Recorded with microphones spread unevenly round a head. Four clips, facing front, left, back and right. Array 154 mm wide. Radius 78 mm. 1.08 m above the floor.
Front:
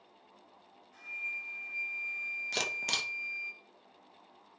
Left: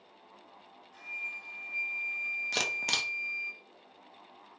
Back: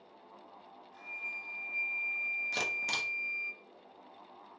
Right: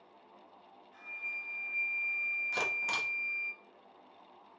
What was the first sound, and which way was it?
A flute, 20° left.